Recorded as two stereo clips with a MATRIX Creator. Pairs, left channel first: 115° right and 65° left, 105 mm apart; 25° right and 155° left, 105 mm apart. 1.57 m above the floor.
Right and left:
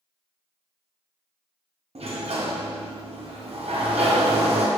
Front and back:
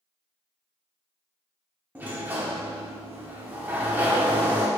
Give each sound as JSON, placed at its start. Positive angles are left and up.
{"t": 1.9, "sound": "a sliding door", "azimuth_deg": 85, "distance_m": 0.6}